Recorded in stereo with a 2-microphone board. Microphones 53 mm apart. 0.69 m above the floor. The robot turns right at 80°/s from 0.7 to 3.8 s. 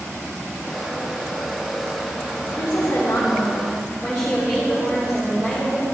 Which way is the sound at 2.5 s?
80° left.